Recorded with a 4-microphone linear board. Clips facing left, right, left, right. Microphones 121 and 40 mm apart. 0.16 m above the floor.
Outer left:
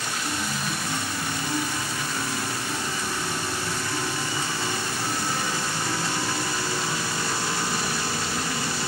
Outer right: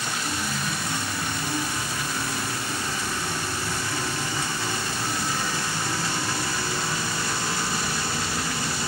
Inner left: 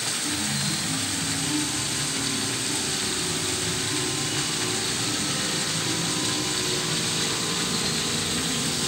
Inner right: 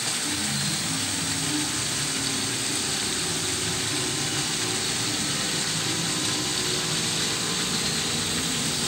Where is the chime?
10° left (ahead or behind).